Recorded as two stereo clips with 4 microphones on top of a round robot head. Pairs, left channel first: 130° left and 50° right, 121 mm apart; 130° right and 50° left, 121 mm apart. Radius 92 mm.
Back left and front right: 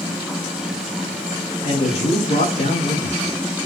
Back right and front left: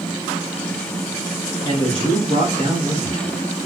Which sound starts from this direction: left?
A man speaking, at 1.6 s.